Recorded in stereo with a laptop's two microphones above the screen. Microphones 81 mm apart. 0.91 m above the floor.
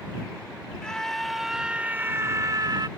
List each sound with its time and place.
0.8 s a scream: 10° left (ahead or behind); by 2.9 s 60° right (ahead or behind)